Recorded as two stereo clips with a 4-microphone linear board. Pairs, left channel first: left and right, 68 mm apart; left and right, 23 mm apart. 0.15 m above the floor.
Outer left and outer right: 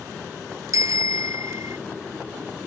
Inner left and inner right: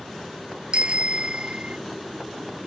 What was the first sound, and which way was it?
A bicycle bell, 50° right (ahead or behind).